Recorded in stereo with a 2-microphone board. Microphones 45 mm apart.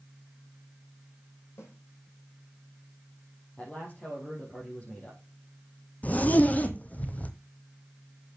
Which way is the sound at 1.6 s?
80° left.